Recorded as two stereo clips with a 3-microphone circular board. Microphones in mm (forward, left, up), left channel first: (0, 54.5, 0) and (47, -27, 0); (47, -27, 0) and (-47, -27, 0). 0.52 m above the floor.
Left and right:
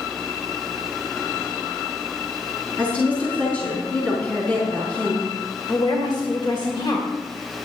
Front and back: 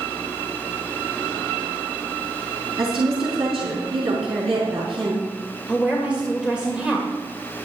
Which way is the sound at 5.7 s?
105° left.